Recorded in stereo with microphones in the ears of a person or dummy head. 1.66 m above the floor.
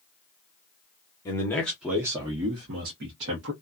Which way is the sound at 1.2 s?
15° left (ahead or behind).